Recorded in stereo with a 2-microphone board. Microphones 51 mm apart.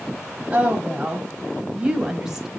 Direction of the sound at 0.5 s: 25° right (ahead or behind).